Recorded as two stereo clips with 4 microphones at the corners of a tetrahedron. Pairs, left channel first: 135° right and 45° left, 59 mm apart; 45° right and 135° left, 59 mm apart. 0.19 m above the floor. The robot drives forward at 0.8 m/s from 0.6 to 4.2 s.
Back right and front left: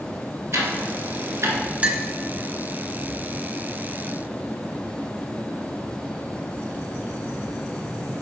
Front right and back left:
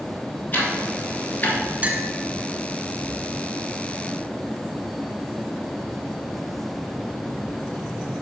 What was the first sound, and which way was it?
Ticking, 10° left.